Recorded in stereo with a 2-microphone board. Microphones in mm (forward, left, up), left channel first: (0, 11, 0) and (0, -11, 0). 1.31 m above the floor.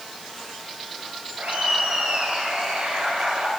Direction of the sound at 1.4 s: 65° right (ahead or behind).